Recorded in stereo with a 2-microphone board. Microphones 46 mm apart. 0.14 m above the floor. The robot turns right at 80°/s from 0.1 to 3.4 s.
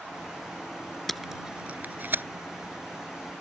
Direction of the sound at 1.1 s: 5° left (ahead or behind).